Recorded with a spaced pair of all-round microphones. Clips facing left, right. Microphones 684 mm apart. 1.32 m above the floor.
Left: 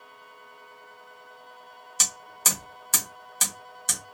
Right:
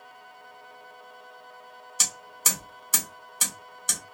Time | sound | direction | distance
2.0 | hammering | 30° left (ahead or behind) | 1.1 m